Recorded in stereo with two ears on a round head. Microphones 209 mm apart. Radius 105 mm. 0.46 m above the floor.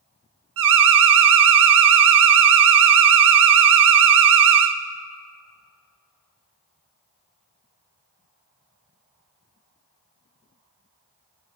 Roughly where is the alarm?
Right.